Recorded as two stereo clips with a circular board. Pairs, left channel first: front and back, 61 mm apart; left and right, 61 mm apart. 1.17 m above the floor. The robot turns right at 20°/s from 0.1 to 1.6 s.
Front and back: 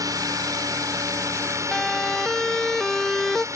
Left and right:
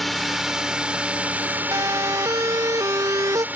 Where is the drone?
Straight behind; by 3.6 s 150° right.